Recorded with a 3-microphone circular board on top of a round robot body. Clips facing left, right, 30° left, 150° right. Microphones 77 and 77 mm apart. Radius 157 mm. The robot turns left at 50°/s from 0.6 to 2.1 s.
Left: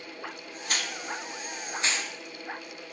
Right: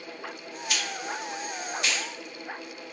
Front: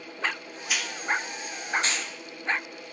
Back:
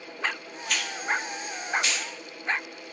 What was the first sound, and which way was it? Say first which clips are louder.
A hiss: right 1 dB, even; 110° left.